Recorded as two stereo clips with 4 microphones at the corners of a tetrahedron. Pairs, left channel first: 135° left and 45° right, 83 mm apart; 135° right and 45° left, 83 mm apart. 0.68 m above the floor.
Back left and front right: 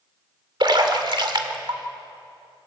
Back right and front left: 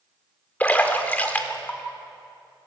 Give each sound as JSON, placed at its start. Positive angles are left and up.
{"t": 0.6, "sound": "a splash", "azimuth_deg": -65, "distance_m": 2.0}